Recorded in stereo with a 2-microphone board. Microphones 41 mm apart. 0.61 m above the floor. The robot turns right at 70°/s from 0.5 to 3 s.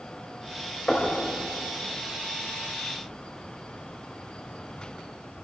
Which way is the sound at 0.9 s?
25° left (ahead or behind).